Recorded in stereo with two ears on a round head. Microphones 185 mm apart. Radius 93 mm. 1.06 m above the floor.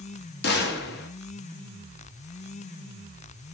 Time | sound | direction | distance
0.4 | a gunshot | 50° left (ahead or behind) | 0.7 m